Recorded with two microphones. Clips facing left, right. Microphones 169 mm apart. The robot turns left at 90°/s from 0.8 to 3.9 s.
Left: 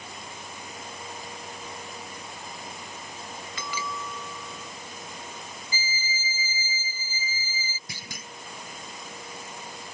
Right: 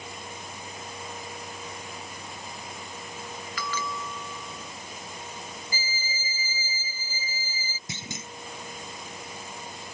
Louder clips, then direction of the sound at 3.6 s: Right 2 dB; 25° left (ahead or behind).